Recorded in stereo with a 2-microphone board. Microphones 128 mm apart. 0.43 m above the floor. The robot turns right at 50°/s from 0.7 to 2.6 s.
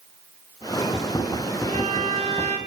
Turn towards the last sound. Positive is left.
turn(degrees=-90)